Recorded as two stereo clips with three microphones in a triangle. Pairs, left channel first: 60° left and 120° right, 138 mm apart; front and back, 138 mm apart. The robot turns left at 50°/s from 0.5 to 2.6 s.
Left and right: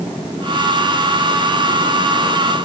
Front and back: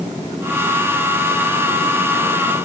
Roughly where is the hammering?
No hammering in this recording.